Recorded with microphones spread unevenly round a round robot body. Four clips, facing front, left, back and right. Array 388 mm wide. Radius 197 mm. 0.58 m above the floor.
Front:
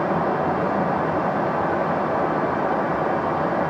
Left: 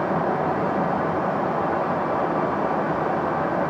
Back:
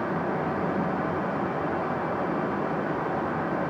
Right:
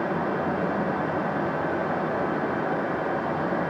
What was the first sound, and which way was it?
Only background noise.